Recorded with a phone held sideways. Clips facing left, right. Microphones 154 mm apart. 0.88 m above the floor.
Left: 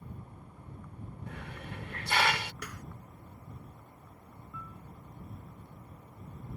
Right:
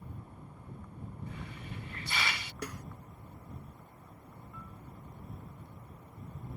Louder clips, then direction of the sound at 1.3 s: Left 1 dB; 75° left (ahead or behind).